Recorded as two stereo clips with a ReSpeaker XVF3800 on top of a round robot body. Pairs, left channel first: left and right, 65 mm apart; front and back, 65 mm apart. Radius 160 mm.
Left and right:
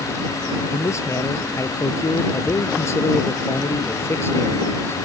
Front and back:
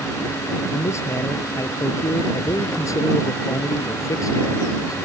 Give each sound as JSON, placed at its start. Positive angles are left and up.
{"t": 0.7, "sound": "a man speaking", "azimuth_deg": 45}